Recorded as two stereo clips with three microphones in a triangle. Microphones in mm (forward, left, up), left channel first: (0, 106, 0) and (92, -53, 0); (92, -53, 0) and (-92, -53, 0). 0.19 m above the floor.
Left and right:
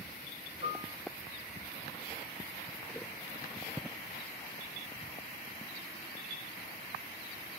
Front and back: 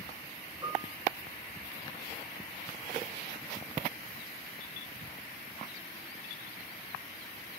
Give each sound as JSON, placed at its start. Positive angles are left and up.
{"t": 0.6, "sound": "a piano", "azimuth_deg": 110, "distance_m": 8.5}